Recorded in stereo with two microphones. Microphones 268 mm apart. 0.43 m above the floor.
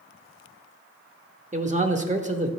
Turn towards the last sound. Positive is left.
turn(degrees=-25)  # may be behind; listen again after turning